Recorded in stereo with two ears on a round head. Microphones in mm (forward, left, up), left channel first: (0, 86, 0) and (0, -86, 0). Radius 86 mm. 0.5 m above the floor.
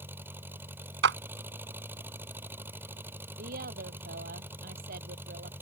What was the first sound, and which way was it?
An engine running, 10° right (ahead or behind).